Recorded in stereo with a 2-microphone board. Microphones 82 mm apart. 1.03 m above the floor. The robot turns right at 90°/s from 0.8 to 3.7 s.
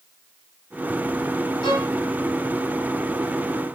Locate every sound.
1.6 s a violin: 70° left (ahead or behind), 1.2 m; by 1.9 s 65° left (ahead or behind), 1.2 m